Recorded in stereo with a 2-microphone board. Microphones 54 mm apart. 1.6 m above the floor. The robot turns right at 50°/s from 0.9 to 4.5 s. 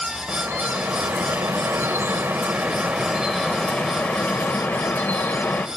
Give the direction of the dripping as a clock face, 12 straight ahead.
4 o'clock.